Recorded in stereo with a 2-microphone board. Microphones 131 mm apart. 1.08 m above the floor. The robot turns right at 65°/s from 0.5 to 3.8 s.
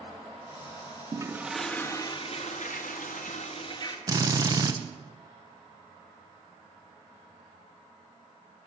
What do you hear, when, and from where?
1.1 s a toilet flushing: 30° right, 1.0 m; by 4.0 s 145° left, 1.0 m
4.1 s a drill: 30° right (ahead or behind), 0.8 m